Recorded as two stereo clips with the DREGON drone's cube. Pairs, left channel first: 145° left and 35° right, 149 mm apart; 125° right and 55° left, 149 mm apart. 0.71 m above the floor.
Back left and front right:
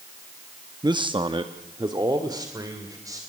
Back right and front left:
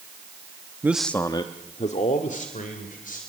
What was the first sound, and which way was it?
A man speaking, 5° right.